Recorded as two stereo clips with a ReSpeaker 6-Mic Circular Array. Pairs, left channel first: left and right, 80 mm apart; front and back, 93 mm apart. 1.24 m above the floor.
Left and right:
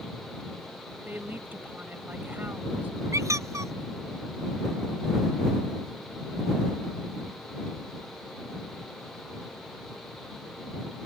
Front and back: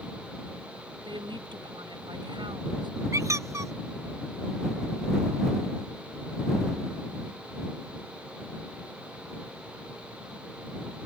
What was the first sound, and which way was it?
A woman speaking, 155° right.